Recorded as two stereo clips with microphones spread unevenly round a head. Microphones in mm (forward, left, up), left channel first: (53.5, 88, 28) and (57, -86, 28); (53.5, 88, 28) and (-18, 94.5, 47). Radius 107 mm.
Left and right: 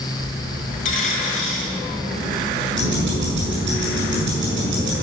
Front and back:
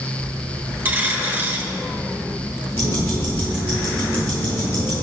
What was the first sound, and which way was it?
A dropped coin, 135° left.